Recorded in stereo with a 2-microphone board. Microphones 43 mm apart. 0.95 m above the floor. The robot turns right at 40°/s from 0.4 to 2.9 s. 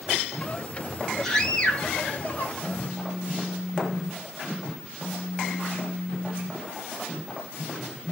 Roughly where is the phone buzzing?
Left.